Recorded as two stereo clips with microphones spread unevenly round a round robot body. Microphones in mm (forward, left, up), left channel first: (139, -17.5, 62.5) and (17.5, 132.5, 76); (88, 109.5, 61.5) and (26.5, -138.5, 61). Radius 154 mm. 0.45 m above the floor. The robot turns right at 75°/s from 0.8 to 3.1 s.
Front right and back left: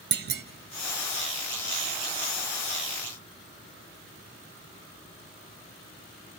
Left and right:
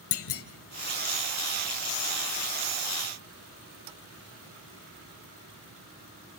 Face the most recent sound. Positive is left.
turn(degrees=-90)